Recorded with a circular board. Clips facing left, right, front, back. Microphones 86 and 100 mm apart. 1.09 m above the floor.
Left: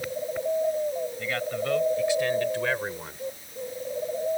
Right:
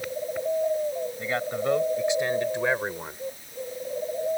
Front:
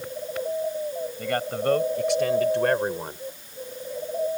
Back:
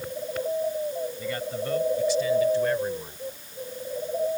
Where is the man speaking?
25° right; by 3.2 s 15° right.